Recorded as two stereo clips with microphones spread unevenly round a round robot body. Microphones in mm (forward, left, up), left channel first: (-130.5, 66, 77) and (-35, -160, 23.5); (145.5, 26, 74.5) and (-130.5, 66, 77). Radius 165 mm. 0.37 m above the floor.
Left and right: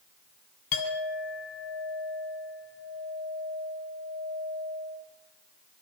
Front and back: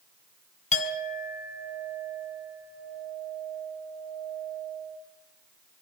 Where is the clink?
55° left, 3 m.